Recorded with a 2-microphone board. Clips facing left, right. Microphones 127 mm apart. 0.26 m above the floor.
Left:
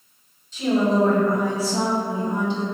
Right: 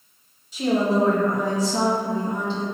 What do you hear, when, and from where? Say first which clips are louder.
0.5 s a woman speaking: left 1 dB; 10° right (ahead or behind), 1.0 m; by 2.6 s 15° left (ahead or behind), 1.8 m